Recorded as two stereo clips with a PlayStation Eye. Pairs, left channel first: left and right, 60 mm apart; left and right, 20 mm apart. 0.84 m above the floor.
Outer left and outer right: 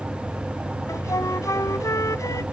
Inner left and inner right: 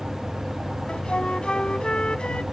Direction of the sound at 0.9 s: 80° left.